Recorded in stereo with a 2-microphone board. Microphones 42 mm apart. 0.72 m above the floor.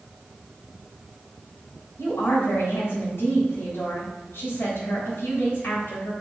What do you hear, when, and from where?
2.0 s a woman speaking: 75° left (ahead or behind), 3.5 m